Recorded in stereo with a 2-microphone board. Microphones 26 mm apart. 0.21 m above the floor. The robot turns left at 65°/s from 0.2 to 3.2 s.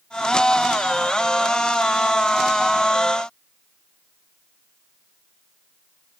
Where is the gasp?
I don't hear a gasp.